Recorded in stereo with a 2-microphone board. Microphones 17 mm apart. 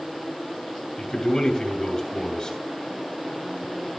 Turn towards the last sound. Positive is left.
turn(degrees=35)  # may be behind; listen again after turning